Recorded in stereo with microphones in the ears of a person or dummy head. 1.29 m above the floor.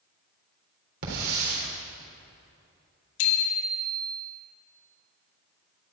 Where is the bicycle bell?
80° left, 2 m.